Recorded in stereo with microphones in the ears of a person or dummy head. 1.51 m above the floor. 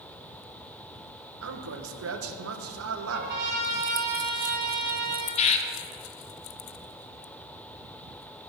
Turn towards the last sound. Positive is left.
turn(degrees=30)  # may be behind; listen again after turning